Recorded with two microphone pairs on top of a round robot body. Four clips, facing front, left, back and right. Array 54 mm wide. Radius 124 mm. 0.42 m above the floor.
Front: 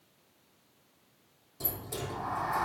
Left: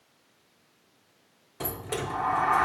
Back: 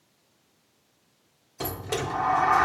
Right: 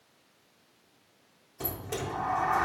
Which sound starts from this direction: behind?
A sliding door, at 1.6 s.